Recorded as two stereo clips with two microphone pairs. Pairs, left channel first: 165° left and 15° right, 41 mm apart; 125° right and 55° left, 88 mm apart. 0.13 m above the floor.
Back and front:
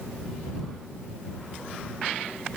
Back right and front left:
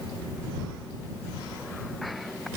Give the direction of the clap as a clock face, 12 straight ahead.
I don't hear a clap.